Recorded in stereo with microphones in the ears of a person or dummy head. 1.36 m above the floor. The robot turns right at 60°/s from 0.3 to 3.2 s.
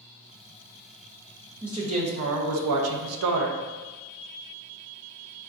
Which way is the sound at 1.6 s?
175° right.